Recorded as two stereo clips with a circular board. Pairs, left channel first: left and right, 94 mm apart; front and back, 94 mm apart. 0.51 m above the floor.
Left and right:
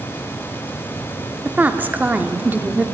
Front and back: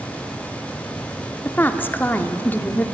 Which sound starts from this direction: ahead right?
A woman speaking, at 1.4 s.